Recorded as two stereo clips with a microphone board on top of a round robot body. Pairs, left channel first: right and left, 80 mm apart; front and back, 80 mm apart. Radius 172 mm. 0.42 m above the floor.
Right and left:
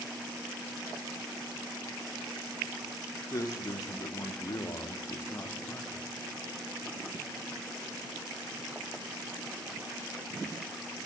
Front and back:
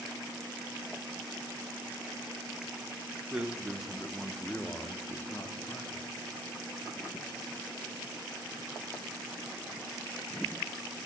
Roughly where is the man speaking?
Right.